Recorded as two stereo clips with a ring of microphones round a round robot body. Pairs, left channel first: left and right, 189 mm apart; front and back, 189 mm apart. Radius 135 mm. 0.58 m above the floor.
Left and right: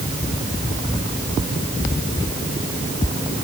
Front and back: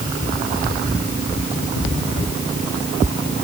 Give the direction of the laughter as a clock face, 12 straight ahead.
I don't hear laughter.